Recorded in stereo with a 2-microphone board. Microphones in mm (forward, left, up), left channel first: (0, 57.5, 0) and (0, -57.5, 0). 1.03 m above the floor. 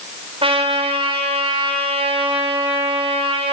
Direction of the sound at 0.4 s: 55° right (ahead or behind).